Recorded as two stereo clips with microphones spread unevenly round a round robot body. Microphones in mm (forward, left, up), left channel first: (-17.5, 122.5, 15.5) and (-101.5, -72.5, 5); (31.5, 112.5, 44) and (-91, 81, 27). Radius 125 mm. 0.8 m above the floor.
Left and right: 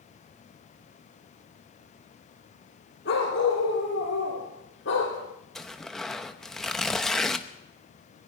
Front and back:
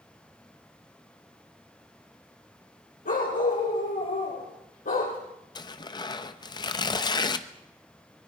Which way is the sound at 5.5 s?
25° right.